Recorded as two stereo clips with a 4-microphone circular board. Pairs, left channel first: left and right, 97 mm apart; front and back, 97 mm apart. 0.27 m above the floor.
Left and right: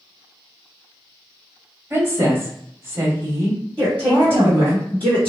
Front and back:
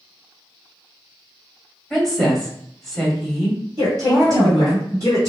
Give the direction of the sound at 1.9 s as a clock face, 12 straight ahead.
3 o'clock.